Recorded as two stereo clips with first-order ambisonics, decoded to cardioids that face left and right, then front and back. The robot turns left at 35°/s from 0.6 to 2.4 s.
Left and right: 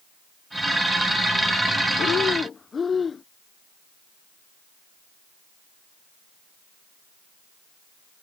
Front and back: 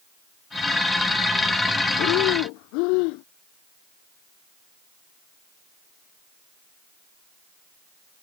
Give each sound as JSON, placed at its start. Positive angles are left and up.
{"t": 2.0, "sound": "breathing", "azimuth_deg": 35}